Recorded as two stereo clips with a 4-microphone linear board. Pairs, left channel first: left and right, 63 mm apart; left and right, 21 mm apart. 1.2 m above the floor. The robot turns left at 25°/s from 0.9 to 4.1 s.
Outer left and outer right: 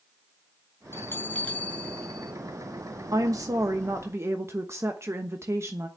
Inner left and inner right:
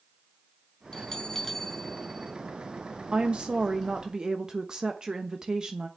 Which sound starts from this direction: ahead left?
A bell, at 0.9 s.